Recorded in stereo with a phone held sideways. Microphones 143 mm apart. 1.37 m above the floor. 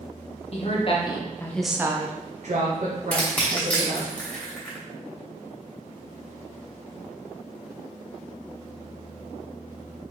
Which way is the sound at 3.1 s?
10° left (ahead or behind).